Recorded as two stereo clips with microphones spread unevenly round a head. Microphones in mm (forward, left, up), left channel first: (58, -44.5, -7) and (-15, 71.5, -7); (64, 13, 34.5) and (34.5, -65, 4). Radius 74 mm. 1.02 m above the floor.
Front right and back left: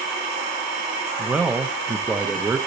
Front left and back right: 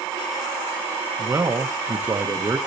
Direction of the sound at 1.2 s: 155° right.